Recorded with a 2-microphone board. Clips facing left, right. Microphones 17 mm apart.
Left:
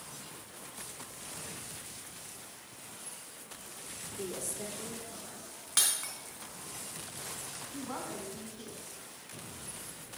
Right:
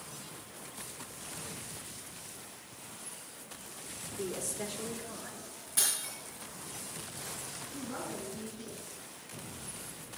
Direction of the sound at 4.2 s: 5° left (ahead or behind).